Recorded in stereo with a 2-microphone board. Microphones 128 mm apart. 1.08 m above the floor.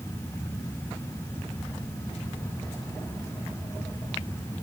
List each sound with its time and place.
Only background noise.